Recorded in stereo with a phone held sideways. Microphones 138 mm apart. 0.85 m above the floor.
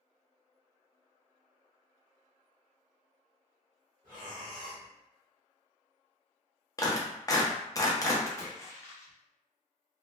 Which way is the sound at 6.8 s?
25° left (ahead or behind).